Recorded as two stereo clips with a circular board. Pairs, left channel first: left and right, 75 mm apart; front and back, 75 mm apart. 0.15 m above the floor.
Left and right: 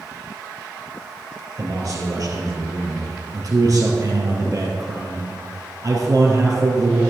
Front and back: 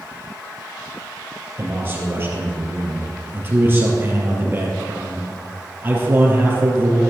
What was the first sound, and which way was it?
A man speaking, 120° right.